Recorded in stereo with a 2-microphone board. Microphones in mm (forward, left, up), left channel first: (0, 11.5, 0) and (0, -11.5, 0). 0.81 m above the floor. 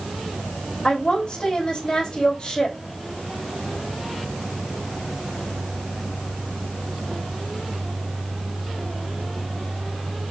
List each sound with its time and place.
0.8 s a woman speaking: 30° left (ahead or behind), 3 m